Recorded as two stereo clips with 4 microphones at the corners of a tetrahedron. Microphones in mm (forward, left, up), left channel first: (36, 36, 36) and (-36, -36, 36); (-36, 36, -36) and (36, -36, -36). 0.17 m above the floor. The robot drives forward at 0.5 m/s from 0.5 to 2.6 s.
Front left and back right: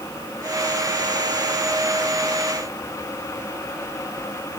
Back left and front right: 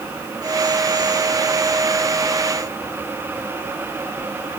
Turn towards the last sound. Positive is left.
No sound to turn to.